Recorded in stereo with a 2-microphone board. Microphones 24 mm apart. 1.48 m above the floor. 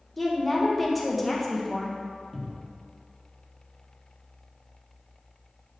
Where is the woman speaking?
5° left (ahead or behind), 1.2 m.